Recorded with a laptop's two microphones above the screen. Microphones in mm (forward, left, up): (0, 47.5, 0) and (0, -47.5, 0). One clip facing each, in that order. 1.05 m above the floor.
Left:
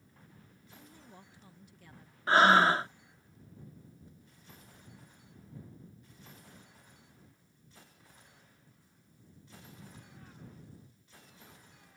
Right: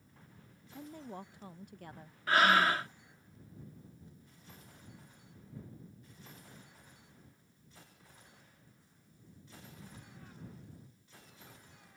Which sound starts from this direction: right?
A woman speaking, at 0.7 s.